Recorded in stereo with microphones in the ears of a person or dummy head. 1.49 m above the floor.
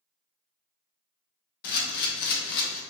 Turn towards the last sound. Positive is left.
turn(degrees=55)  # may be behind; listen again after turning